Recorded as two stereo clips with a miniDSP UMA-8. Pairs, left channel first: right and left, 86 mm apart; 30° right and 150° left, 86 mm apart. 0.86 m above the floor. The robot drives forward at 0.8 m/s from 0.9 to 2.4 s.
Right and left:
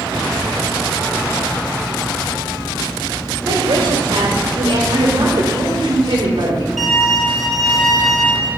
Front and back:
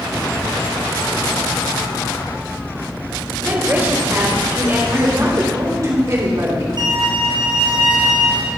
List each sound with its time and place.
3.5 s a woman speaking: 85° left, 3 m
4.9 s a man speaking: 100° left, 2.5 m
6.8 s a violin: straight behind, 4 m